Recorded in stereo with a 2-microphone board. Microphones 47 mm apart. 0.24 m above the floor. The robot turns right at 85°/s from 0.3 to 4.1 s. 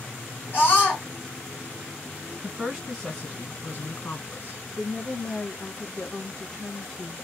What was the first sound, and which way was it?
A scream, 105° left.